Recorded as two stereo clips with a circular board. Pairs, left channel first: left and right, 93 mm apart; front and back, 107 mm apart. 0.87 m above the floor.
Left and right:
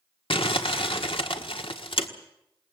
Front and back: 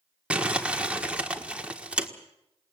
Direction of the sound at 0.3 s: 100° left.